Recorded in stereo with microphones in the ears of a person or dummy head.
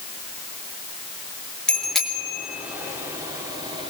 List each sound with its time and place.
1.7 s a bicycle bell: centre (ahead or behind), 3 m; by 3.9 s 25° right (ahead or behind), 2.5 m